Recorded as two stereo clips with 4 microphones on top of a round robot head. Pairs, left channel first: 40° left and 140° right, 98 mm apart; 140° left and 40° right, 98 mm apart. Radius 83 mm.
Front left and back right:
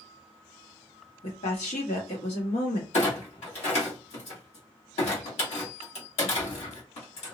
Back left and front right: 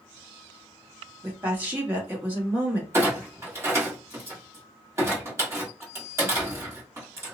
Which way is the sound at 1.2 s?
30° left.